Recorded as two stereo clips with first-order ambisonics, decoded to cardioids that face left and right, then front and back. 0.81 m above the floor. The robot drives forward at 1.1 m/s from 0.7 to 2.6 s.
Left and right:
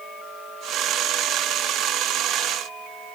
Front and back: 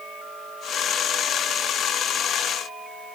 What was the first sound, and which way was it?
Only background noise.